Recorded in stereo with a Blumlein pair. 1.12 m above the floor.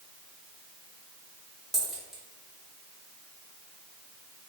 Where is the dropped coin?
Straight ahead, 1.8 m.